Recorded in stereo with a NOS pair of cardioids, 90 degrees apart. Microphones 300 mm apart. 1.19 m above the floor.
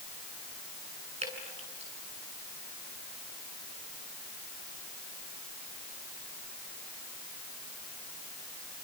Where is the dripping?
25° right, 8.5 m.